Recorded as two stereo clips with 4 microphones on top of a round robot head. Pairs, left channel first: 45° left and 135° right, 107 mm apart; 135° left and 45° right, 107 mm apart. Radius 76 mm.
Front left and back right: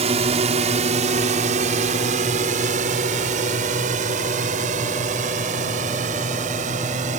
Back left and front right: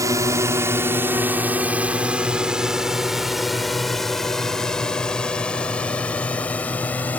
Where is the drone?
105° right; by 7.2 s 150° right.